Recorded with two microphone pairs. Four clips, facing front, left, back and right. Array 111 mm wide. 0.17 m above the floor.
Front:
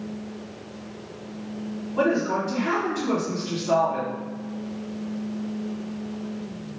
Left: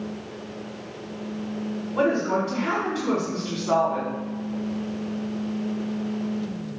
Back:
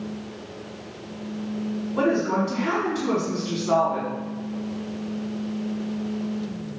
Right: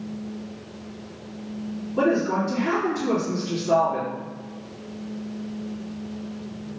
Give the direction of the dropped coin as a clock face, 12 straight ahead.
No dropped coin in this recording.